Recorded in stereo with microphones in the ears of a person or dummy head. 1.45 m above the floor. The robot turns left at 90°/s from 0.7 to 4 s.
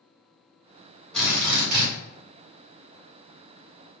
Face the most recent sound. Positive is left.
turn(degrees=105)